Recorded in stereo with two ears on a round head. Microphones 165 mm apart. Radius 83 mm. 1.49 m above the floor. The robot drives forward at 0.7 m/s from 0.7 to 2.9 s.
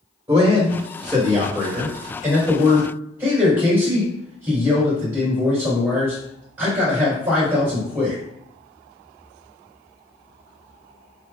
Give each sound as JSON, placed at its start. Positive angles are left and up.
{"t": 0.3, "sound": "a man speaking", "side_deg": -20, "distance_m": 1.1}